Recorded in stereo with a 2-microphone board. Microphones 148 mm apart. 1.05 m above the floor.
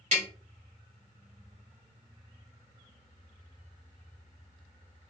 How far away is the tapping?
About 1.2 m.